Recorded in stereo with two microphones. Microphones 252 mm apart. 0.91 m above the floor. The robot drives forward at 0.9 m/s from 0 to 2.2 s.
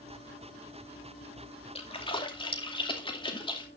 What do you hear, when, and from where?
1.8 s a splash: 25° left (ahead or behind), 2 m; by 3.7 s 20° left (ahead or behind), 2.5 m